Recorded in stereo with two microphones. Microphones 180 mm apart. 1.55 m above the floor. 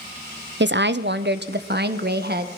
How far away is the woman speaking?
About 0.6 m.